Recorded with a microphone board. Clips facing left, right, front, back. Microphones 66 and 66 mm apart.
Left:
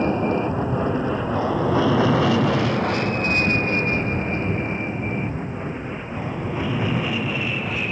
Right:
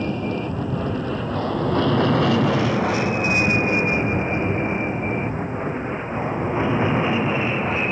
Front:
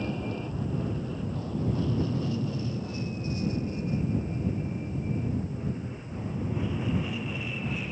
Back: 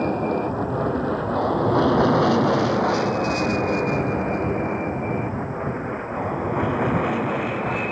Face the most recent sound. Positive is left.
turn(degrees=-150)